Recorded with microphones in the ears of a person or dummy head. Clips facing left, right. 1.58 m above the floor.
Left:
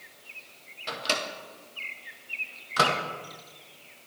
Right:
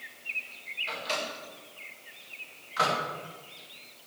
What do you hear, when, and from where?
0.9 s a microwave: 65° left (ahead or behind), 1.5 m